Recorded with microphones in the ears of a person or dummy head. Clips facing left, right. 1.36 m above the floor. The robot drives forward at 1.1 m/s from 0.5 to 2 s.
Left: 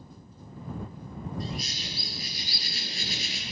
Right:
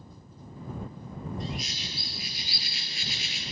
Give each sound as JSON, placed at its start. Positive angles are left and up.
{"t": 1.4, "sound": "a bird", "side_deg": 40, "distance_m": 7.0}